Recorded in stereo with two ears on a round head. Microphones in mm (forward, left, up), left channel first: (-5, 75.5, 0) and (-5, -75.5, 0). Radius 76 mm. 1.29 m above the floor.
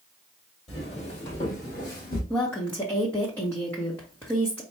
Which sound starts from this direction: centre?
A woman speaking, at 2.3 s.